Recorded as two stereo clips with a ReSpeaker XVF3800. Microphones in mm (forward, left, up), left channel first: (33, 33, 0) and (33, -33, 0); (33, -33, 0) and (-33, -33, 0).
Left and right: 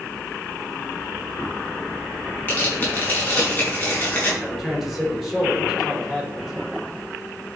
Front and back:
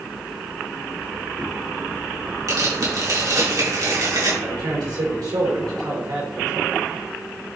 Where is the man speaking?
Straight behind, 5 m.